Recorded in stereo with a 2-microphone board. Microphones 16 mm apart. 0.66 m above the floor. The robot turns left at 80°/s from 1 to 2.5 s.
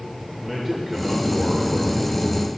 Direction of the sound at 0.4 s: 5° left.